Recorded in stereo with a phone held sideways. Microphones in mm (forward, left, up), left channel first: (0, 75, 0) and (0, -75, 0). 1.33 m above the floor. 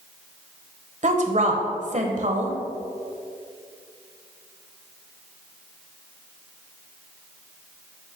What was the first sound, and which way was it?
A woman speaking, 55° right (ahead or behind).